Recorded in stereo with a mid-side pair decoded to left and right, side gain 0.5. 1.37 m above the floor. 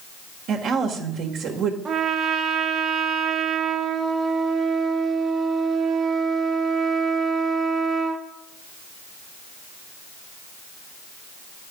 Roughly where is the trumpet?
Ahead right.